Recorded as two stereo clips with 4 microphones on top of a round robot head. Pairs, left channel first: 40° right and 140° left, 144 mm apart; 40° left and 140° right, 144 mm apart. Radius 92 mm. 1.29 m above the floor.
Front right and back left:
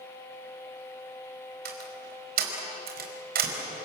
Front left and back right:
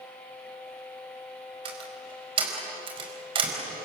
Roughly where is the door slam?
Behind.